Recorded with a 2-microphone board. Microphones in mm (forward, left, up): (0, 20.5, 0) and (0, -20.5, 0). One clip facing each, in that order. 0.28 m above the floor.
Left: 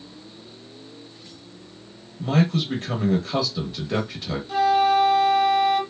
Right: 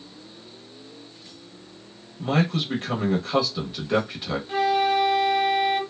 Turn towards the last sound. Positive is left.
turn(degrees=-25)  # may be behind; listen again after turning